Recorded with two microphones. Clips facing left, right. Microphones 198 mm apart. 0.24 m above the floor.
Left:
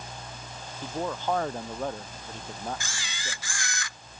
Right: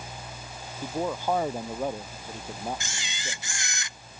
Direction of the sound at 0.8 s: 10° right (ahead or behind).